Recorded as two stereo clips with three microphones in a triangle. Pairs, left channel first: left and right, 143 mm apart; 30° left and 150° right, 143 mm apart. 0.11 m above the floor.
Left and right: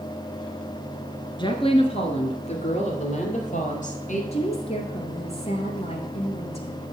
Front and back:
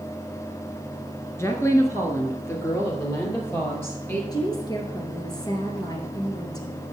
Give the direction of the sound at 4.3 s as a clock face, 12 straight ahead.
9 o'clock.